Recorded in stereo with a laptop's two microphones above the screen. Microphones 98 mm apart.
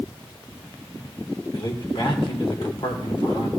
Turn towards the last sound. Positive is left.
turn(degrees=65)  # may be behind; listen again after turning